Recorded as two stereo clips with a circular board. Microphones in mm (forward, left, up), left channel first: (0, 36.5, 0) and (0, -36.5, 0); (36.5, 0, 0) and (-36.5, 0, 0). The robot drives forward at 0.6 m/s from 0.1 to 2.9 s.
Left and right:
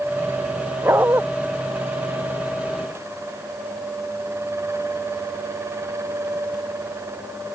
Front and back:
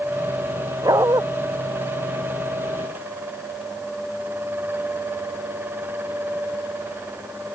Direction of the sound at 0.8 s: 145° right.